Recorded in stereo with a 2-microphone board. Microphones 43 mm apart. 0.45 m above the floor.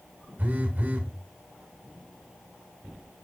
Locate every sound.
0.4 s a phone buzzing: 40° right (ahead or behind), 1.2 m